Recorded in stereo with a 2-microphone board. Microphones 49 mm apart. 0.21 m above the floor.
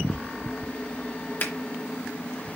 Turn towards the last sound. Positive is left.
turn(degrees=45)  # may be behind; listen again after turning